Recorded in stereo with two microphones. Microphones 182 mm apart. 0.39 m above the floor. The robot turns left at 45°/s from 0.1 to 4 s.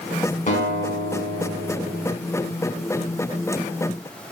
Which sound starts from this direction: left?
A guitar, at 0.5 s.